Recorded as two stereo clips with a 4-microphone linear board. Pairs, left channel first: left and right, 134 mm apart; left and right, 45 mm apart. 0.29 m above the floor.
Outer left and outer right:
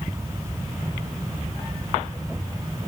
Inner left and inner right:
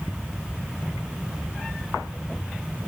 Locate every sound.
Only background noise.